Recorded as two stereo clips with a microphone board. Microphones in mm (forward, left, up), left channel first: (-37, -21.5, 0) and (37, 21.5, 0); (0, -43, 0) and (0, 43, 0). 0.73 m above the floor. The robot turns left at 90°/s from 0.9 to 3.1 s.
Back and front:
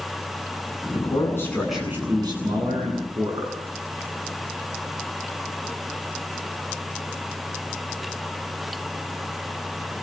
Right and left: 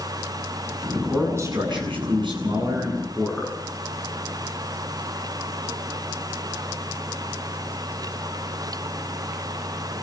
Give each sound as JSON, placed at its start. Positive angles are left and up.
{"t": 0.9, "sound": "a man speaking", "azimuth_deg": -170, "distance_m": 9.0}